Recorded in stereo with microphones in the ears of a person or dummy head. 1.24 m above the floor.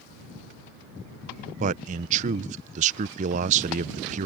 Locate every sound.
1.6 s a man speaking: 45° right (ahead or behind)